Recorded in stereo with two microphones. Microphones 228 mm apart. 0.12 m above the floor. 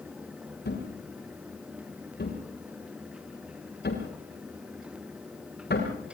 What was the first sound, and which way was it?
A thud, 45° left (ahead or behind).